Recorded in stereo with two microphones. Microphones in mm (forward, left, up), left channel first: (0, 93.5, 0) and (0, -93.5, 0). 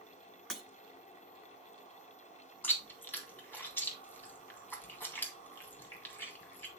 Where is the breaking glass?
5° left (ahead or behind), 1.4 m.